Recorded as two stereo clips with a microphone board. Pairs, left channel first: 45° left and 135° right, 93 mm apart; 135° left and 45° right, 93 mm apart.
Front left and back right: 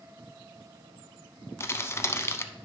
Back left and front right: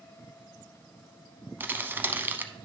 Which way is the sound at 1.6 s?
5° left.